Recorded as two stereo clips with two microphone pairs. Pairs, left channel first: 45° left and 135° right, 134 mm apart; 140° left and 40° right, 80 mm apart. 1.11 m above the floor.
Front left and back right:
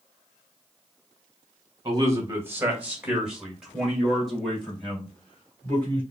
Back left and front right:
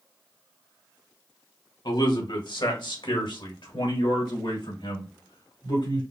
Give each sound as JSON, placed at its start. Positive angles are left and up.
{"t": 1.9, "sound": "a man speaking", "azimuth_deg": 160, "distance_m": 1.3}